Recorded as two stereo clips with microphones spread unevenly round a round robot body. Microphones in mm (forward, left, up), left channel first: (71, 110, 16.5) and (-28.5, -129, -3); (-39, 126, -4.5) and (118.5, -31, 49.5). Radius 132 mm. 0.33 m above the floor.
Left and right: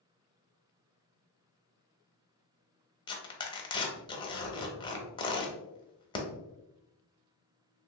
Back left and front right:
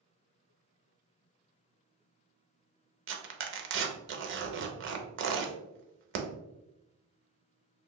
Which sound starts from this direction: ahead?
Tearing paper, at 3.1 s.